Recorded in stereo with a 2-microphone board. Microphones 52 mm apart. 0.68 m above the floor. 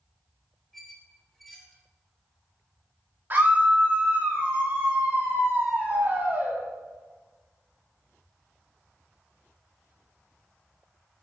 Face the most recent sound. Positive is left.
turn(degrees=-40)  # may be behind; listen again after turning